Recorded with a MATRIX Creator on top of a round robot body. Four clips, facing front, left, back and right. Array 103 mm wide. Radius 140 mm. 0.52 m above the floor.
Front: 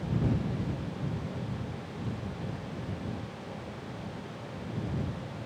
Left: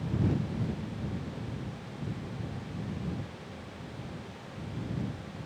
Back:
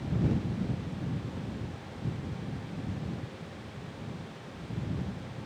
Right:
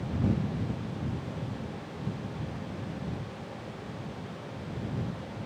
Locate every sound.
Only background noise.